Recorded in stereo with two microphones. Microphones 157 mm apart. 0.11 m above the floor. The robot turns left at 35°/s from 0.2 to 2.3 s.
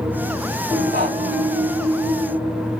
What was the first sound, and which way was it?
Breathing, 80° right.